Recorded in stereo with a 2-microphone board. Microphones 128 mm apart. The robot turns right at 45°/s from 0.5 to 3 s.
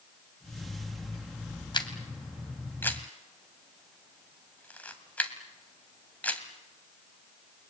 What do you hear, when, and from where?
1.7 s a camera shutter: 35° left (ahead or behind), 2.0 m; by 6.4 s 10° left (ahead or behind), 2.0 m